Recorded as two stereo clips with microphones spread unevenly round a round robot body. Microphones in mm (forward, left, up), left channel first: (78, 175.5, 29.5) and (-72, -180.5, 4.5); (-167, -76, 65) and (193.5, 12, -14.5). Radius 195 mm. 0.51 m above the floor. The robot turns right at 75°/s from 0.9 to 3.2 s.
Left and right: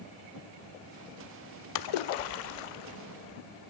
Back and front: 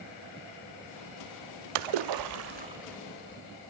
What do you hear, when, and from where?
1.8 s a splash: 20° left, 0.8 m; by 3.4 s 125° left, 0.8 m